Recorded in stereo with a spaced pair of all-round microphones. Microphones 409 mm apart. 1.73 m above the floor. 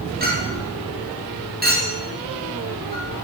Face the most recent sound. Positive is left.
turn(degrees=-20)  # may be behind; listen again after turning